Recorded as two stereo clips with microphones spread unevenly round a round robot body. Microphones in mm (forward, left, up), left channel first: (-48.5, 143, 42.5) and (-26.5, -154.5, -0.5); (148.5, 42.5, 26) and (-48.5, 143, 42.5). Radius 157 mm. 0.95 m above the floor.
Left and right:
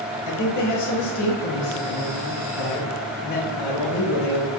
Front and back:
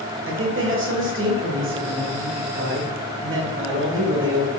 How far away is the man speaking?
About 1.3 m.